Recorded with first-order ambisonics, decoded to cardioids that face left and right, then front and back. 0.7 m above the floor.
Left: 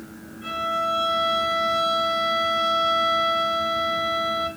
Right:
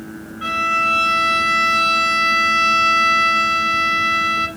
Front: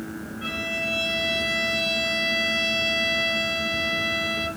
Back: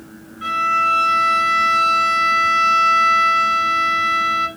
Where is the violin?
105° right, 2.5 m.